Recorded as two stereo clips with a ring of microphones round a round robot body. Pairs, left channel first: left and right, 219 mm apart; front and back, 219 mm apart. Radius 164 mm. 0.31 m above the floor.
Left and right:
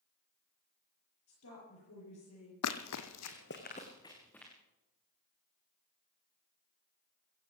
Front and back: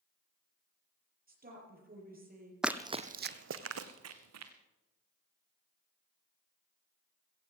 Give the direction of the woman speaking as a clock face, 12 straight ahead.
8 o'clock.